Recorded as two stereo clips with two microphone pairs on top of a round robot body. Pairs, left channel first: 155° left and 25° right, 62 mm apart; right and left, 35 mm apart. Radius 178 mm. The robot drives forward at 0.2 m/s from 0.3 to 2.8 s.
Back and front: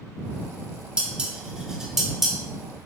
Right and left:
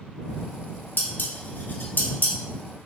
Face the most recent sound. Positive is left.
turn(degrees=-120)